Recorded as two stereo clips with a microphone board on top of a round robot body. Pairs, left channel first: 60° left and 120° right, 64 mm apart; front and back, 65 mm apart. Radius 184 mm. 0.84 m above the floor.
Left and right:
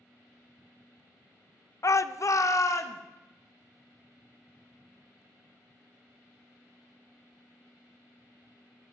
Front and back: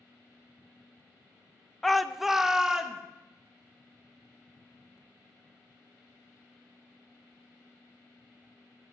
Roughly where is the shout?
Left.